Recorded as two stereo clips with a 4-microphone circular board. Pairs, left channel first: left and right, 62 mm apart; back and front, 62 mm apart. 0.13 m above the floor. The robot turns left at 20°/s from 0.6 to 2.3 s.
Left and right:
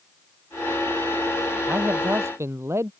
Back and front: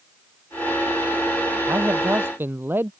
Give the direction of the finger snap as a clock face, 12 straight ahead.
No finger snap in this recording.